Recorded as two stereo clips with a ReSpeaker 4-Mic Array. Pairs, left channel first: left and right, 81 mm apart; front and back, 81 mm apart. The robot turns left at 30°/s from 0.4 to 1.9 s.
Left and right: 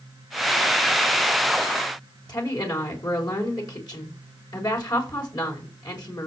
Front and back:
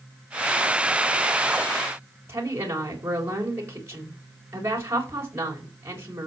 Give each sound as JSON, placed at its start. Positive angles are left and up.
{"t": 2.3, "sound": "a woman speaking", "azimuth_deg": 125, "distance_m": 4.5}